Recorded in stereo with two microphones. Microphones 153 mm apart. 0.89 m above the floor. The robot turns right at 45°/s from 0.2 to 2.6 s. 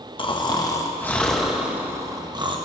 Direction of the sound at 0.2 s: 125° left.